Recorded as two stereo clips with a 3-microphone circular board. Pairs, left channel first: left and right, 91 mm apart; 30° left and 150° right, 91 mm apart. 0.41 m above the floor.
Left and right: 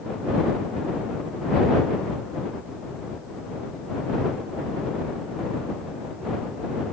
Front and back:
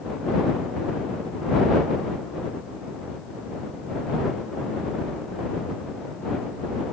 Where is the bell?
No bell in this recording.